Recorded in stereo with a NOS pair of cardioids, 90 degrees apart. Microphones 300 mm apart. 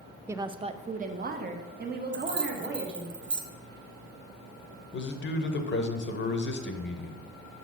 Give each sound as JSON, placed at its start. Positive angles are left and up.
{"t": 0.3, "sound": "a woman speaking", "azimuth_deg": -10, "distance_m": 0.5}
{"t": 2.1, "sound": "keys jangling", "azimuth_deg": -40, "distance_m": 1.1}
{"t": 4.9, "sound": "a man speaking", "azimuth_deg": 40, "distance_m": 1.2}